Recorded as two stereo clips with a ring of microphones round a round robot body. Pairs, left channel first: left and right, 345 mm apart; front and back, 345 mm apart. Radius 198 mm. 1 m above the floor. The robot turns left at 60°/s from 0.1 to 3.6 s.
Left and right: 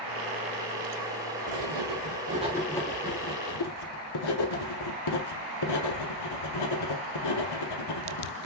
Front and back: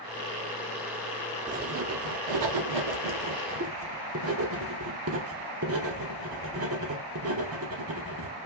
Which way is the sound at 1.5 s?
110° right.